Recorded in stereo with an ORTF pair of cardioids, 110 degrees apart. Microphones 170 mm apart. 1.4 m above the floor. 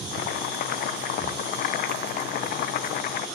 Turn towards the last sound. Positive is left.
turn(degrees=65)